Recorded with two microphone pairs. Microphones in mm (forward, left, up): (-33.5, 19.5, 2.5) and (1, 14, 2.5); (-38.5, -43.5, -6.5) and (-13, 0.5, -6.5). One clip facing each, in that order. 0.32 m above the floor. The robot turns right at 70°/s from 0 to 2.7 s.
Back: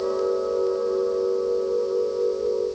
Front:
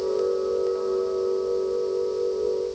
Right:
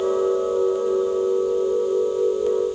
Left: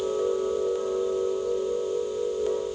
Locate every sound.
Only background noise.